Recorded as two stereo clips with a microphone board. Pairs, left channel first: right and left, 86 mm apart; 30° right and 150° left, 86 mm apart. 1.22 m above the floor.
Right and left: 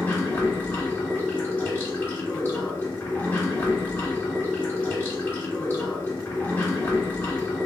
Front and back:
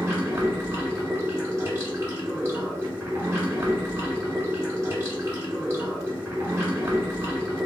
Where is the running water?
155° right, 1.4 m.